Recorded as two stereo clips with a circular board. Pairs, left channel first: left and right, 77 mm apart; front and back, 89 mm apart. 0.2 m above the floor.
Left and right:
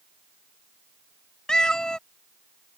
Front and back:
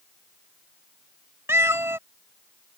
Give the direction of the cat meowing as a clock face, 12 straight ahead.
7 o'clock.